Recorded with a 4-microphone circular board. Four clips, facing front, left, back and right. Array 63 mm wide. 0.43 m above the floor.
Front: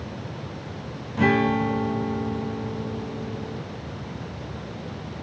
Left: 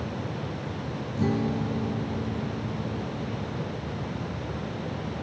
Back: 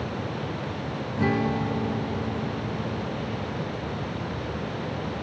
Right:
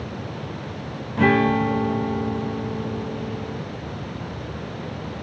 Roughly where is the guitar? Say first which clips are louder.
Right 10 dB, front 5 dB; right.